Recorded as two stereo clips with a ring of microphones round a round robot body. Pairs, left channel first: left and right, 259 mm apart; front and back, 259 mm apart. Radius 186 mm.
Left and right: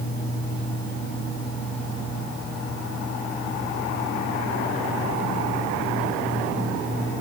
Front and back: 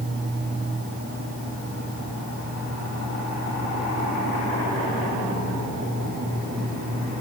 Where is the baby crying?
No baby crying in this recording.